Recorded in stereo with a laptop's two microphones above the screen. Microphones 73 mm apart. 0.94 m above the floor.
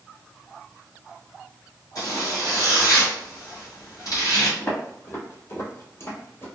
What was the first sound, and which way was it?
A zipper, 55° left (ahead or behind).